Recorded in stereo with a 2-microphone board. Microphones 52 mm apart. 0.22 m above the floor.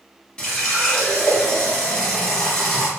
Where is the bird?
I don't hear a bird.